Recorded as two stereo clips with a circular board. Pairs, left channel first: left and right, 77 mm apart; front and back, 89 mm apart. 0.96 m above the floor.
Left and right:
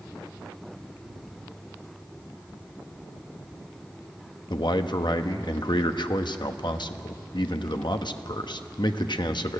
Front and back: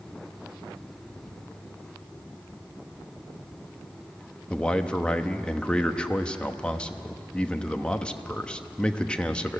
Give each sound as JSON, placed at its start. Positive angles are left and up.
{"t": 4.5, "sound": "a man speaking", "azimuth_deg": 80, "distance_m": 1.0}